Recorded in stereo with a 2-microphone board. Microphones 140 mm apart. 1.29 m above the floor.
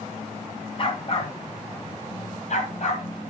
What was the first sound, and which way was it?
A dog barking, 40° left (ahead or behind).